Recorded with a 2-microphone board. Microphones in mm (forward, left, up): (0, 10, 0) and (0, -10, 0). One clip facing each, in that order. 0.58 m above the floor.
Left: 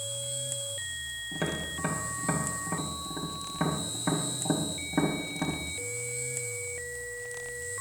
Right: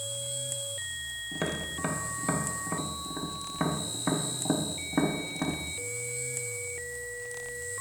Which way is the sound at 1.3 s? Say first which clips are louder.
Even; 10° right (ahead or behind).